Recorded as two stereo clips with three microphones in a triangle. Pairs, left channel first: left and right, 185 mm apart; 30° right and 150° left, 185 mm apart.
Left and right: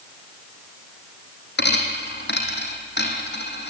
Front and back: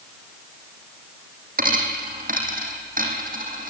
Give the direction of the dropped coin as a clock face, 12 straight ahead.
8 o'clock.